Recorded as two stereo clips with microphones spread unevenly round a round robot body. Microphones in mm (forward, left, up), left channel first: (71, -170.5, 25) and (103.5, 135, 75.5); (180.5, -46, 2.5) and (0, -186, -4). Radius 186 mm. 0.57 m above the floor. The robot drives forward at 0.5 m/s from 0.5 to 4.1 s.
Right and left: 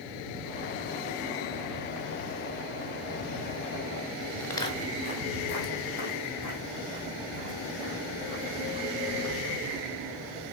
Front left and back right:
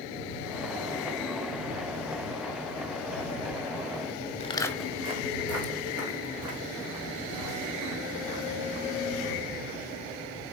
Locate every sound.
4.4 s footsteps: 5° right, 0.6 m; by 9.8 s 165° right, 3.5 m